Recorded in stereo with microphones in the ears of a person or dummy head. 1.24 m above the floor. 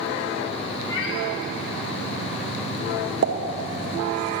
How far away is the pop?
About 1.1 m.